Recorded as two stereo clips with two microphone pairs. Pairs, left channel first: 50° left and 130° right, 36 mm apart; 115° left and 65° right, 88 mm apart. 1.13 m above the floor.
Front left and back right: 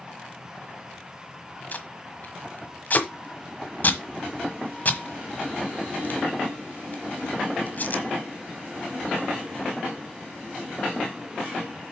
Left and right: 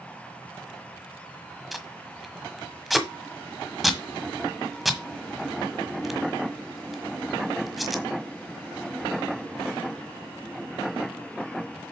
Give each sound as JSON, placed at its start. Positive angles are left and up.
{"t": 1.7, "sound": "tape being pulled", "azimuth_deg": 25, "distance_m": 1.4}